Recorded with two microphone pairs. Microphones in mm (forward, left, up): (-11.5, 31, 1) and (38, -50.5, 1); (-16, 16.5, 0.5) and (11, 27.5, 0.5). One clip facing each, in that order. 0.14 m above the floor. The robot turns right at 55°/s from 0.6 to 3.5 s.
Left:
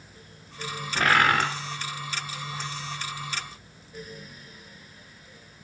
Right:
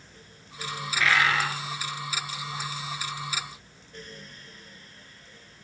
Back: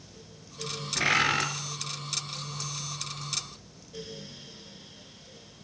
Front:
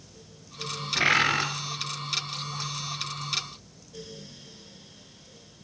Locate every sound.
0.9 s a bird: 85° left, 1.2 m; by 1.5 s 115° left, 1.2 m